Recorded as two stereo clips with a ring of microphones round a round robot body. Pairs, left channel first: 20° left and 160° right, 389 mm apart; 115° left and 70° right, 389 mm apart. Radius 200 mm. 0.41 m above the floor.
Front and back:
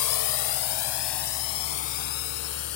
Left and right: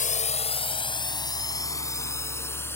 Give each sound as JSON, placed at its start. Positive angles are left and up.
{"t": 0.0, "sound": "a drone", "azimuth_deg": 45}